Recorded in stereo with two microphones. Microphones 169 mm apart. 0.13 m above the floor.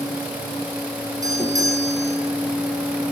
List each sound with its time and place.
1.2 s a doorbell: 20° right (ahead or behind), 4.5 m